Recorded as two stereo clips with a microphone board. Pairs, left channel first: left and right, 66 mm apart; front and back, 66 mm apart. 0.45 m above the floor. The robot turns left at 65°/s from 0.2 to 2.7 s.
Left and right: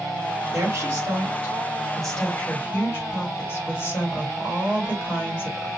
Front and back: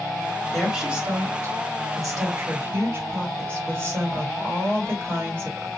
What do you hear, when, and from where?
0.5 s a woman speaking: 95° right, 1.7 m; by 5.7 s 125° left, 1.7 m